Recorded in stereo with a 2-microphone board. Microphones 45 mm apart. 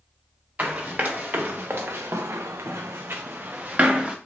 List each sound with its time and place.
0.6 s running footsteps: 40° right (ahead or behind), 1.2 m; by 4.2 s 20° right (ahead or behind), 0.8 m